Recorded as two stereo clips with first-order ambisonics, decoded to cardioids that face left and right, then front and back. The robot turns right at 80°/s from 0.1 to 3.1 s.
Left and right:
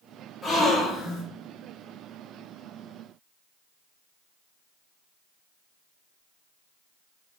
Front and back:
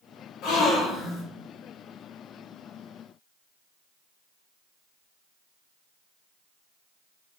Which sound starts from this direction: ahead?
A gasp, at 0.4 s.